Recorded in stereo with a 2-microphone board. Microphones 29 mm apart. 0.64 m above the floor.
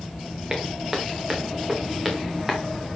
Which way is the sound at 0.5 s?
15° right (ahead or behind).